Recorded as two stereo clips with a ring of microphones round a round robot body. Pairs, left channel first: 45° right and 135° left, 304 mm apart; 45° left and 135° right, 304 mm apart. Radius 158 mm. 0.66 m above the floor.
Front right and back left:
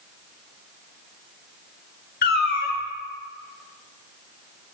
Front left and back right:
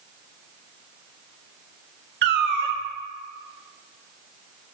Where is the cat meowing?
95° right, 0.5 m.